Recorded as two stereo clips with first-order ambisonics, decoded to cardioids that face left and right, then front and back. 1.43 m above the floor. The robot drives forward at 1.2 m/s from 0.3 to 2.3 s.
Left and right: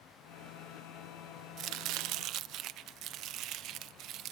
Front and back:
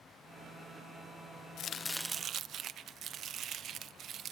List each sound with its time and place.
1.6 s chopping: 45° right; by 4.3 s 130° right